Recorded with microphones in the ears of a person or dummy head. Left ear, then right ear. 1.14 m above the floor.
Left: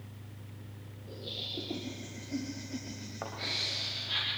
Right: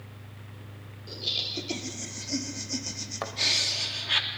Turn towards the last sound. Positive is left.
turn(degrees=-75)  # may be behind; listen again after turning